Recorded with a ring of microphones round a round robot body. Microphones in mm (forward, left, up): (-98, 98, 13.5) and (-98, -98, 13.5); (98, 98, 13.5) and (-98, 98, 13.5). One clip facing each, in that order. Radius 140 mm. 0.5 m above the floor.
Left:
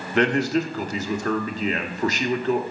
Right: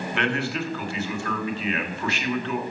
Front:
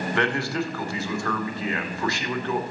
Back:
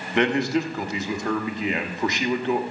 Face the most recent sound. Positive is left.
turn(degrees=115)